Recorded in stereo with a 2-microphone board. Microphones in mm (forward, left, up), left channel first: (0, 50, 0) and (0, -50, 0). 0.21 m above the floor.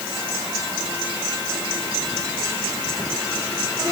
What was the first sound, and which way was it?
Only background noise.